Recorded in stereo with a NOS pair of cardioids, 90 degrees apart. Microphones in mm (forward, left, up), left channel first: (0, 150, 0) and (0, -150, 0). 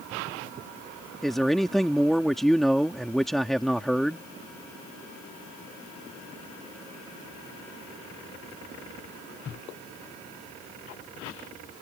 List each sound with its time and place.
1.2 s a man speaking: straight ahead